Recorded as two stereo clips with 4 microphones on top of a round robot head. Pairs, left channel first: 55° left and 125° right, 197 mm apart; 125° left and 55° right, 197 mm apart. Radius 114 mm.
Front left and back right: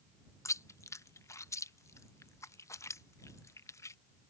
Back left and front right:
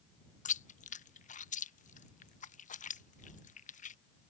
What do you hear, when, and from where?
0.5 s chewing: 120° left